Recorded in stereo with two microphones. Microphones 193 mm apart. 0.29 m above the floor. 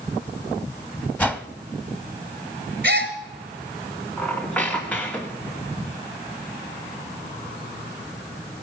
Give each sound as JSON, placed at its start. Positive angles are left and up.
{"t": 1.2, "sound": "a whoosh", "side_deg": 10, "distance_m": 0.8}
{"t": 2.8, "sound": "a gasp", "side_deg": -55, "distance_m": 2.5}
{"t": 4.2, "sound": "a squeak", "side_deg": 5, "distance_m": 2.0}